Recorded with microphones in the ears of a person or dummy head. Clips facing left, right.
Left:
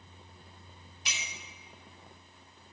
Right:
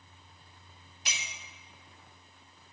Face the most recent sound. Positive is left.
turn(degrees=-40)  # may be behind; listen again after turning